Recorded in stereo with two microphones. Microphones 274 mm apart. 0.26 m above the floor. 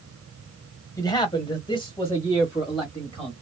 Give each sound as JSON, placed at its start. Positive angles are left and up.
{"t": 1.0, "sound": "a man speaking", "side_deg": 15, "distance_m": 1.3}